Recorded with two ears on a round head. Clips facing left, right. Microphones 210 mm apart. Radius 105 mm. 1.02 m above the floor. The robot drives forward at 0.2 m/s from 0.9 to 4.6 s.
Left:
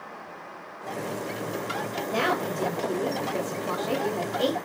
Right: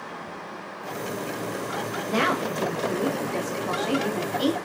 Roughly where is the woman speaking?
Right.